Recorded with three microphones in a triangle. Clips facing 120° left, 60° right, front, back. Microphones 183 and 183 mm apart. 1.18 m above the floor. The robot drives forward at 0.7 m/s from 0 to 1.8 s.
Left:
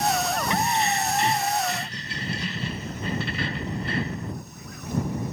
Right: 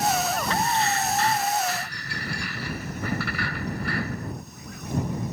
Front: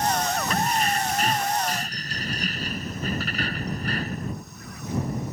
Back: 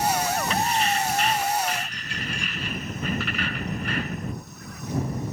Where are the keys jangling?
45° left; by 4.3 s 50° left.